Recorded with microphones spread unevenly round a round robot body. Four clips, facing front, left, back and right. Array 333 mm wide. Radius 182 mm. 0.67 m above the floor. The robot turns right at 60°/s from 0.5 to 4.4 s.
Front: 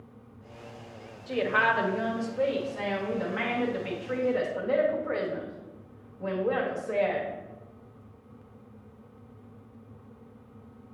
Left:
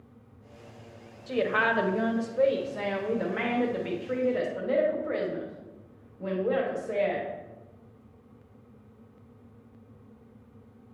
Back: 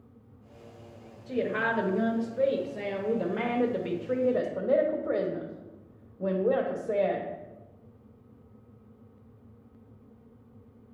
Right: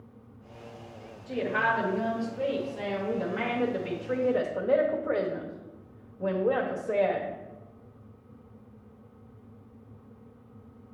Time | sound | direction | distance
1.3 | a woman speaking | 25° left | 1.1 m